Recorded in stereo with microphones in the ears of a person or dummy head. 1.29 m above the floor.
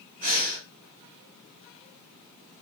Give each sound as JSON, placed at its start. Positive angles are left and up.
{"t": 0.2, "sound": "breathing", "side_deg": -40, "distance_m": 0.8}